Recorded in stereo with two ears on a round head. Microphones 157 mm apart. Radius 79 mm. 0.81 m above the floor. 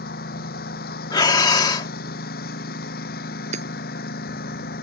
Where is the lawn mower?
55° left (ahead or behind).